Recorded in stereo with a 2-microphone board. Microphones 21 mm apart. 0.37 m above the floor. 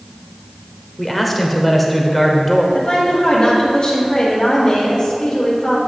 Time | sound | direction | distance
1.0 | a man speaking | 5° left (ahead or behind) | 0.9 m
2.7 | a woman speaking | 35° left (ahead or behind) | 2.5 m